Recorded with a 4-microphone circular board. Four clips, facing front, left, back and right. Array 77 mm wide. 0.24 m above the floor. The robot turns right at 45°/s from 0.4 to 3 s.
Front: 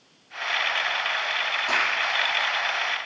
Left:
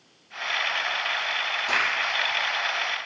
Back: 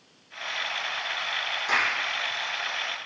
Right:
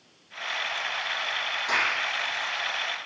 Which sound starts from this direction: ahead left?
A clap, at 1.7 s.